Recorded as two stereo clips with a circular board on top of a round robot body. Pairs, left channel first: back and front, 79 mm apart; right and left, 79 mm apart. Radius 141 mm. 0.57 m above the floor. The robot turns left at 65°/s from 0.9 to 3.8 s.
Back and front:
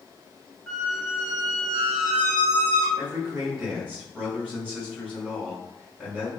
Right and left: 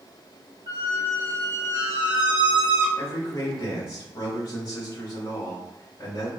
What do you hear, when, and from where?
0.7 s a squeak: 95° left, 1.6 m; by 2.9 s 35° right, 1.6 m
3.0 s a man speaking: 45° right, 1.7 m; by 6.3 s 100° right, 1.7 m